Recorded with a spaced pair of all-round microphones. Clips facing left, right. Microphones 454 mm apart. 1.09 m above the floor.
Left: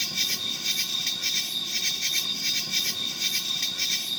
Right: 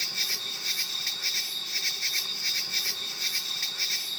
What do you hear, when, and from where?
0.0 s an insect: 50° left (ahead or behind)